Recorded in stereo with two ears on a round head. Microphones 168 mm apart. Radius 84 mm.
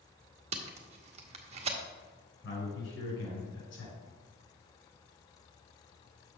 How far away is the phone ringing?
No phone ringing in this recording.